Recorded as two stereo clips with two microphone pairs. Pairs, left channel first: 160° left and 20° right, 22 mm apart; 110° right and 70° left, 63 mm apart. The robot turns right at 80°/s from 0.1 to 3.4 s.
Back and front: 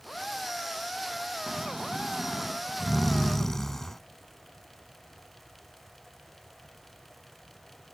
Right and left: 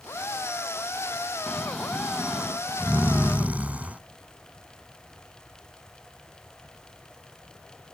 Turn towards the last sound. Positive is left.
turn(degrees=100)